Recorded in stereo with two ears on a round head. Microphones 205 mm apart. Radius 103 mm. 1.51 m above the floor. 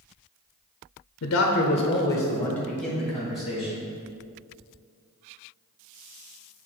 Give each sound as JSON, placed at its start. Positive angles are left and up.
{"t": 1.2, "sound": "a man speaking", "side_deg": 65, "distance_m": 0.6}